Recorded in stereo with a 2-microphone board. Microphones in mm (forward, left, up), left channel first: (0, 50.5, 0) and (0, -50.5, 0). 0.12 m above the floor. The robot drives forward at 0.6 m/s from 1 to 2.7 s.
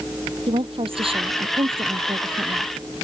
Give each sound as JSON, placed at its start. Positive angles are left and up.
{"t": 0.5, "sound": "a woman speaking", "side_deg": -65}